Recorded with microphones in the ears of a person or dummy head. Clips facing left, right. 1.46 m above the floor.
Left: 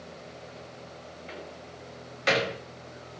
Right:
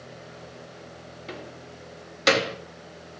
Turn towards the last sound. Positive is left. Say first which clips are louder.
# right 4 dB
turn(degrees=-70)  # may be behind; listen again after turning